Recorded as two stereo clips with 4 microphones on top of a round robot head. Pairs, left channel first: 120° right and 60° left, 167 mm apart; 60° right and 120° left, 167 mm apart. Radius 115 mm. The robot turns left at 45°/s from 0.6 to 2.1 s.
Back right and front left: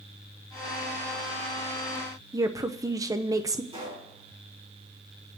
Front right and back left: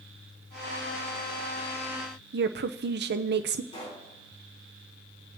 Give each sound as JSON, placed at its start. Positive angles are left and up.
{"t": 2.3, "sound": "a woman speaking", "azimuth_deg": 130, "distance_m": 0.6}
{"t": 3.7, "sound": "a pop", "azimuth_deg": 0, "distance_m": 5.0}